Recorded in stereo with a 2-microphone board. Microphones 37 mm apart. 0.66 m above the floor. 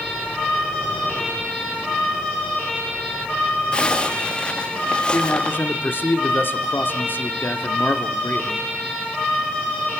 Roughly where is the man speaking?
Left.